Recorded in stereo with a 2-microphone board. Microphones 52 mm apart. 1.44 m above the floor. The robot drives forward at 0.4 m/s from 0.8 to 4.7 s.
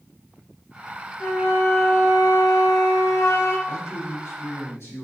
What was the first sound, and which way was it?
A flute, 45° left (ahead or behind).